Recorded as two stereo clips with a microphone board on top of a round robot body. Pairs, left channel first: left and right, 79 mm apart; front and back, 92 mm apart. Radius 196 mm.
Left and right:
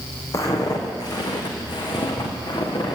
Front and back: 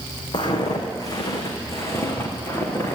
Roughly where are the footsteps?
Ahead left.